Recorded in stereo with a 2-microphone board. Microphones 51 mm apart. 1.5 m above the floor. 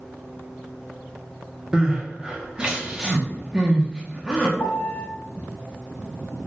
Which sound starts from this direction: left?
A piano, at 4.6 s.